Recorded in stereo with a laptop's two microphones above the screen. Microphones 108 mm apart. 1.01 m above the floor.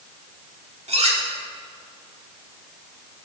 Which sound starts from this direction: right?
Cutlery clinking, at 0.9 s.